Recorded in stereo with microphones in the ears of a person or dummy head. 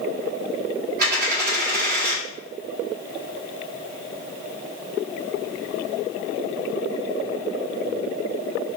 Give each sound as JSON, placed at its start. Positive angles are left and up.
{"t": 1.0, "sound": "a dropped coin", "side_deg": -50, "distance_m": 1.8}